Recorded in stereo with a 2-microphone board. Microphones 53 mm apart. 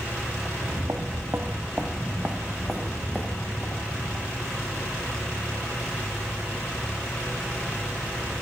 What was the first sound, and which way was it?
Footsteps, 80° right.